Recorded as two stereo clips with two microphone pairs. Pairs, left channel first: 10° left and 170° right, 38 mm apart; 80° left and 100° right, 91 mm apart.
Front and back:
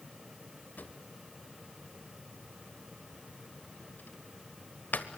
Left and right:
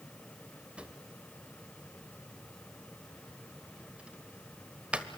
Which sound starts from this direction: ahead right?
A drawer, at 0.8 s.